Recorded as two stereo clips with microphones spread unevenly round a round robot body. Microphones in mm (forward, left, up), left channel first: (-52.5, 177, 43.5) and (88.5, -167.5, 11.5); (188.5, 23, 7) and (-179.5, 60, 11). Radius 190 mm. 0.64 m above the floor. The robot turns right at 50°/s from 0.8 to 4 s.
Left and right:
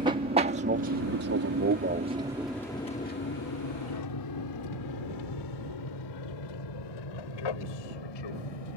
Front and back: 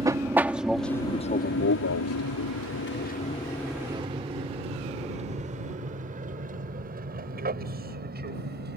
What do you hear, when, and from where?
0.0 s an aircraft: 115° right; by 8.8 s 110° left